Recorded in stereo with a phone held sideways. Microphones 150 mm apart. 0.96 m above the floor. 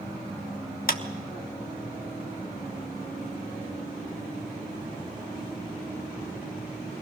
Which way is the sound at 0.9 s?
65° left (ahead or behind).